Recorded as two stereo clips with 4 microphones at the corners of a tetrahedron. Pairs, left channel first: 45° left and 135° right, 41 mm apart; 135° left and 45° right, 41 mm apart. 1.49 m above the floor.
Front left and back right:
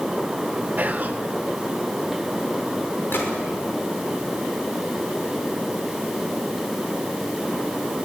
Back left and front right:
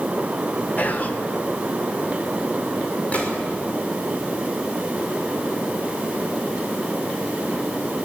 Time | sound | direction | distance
0.8 | whispering | straight behind | 0.9 m
3.1 | a gunshot | 80° left | 5.5 m